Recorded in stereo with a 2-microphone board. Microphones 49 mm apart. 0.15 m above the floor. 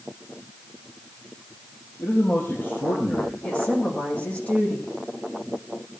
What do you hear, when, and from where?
2.0 s a man speaking: 50° left (ahead or behind), 4 m; by 3.3 s 25° left (ahead or behind), 4.5 m
3.4 s a woman speaking: 25° left (ahead or behind), 7.5 m